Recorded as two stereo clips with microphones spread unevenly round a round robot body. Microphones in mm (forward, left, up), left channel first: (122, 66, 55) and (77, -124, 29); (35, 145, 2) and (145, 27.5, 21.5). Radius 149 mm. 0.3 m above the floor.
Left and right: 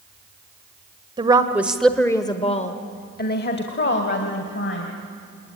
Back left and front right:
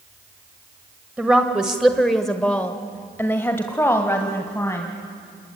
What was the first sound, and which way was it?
A woman speaking, 135° right.